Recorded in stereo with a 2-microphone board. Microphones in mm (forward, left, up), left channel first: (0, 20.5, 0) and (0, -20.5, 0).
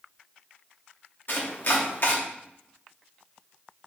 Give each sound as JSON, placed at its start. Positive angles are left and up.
{"t": 1.3, "sound": "chopping", "side_deg": 55, "distance_m": 0.6}